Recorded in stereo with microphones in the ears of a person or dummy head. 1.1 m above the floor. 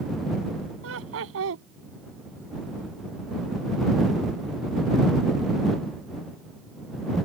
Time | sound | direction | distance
0.8 | laughter | 70° right (ahead or behind) | ?